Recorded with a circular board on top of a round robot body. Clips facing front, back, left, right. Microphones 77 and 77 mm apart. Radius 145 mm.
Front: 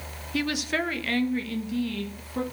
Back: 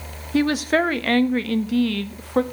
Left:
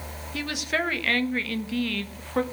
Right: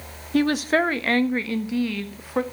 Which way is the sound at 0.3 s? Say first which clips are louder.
Back 9 dB, right 9 dB; 130° right.